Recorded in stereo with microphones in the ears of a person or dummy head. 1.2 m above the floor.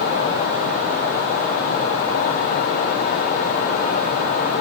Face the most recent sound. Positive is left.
No sound to turn to.